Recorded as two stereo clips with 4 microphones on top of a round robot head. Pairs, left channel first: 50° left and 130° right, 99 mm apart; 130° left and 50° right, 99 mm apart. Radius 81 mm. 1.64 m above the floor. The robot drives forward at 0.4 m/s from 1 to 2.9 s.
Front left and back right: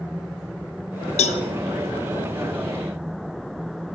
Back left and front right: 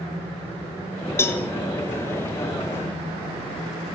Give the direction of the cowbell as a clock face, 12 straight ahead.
10 o'clock.